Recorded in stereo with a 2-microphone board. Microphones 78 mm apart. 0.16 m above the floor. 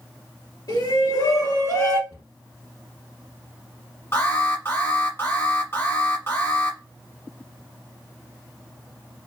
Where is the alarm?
30° left (ahead or behind), 1.1 m.